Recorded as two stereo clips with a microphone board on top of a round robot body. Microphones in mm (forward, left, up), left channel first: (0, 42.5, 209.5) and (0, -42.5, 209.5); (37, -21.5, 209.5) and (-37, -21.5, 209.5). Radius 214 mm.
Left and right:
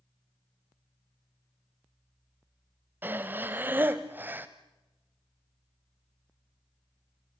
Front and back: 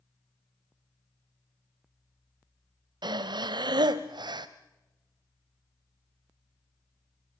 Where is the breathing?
160° right, 0.6 m.